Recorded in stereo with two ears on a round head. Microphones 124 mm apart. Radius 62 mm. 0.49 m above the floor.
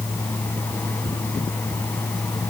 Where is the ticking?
I don't hear ticking.